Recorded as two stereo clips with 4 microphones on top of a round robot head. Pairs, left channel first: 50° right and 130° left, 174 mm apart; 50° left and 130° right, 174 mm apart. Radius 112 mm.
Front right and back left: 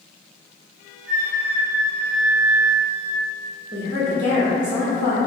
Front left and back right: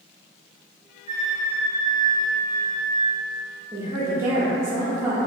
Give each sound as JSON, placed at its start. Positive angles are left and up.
{"t": 1.1, "sound": "a flute", "azimuth_deg": 80, "distance_m": 1.3}
{"t": 3.7, "sound": "a woman speaking", "azimuth_deg": 155, "distance_m": 0.9}